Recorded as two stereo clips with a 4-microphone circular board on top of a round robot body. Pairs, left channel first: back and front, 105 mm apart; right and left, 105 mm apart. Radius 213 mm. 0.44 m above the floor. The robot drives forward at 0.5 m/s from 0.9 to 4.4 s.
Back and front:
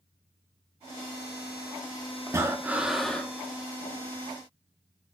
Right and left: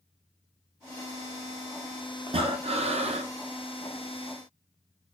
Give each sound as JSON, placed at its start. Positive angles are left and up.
{"t": 2.3, "sound": "breathing", "azimuth_deg": 55, "distance_m": 0.8}